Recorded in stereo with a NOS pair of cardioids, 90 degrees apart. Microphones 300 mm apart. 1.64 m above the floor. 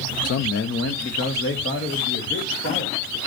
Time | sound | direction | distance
0.2 | a man speaking | 55° left | 0.9 m